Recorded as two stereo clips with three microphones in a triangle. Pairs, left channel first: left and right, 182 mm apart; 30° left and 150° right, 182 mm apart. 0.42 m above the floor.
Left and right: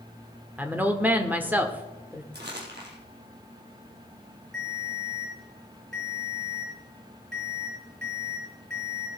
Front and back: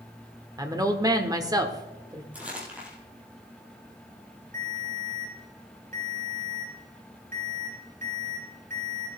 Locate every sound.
0.6 s a woman speaking: 150° right, 1.2 m
2.3 s crumpling: 65° right, 3.5 m
4.5 s a ringtone: 105° right, 6 m